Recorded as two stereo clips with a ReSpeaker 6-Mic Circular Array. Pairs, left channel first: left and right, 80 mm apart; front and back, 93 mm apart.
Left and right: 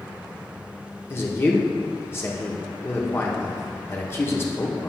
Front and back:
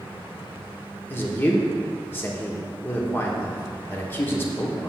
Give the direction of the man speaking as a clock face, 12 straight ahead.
10 o'clock.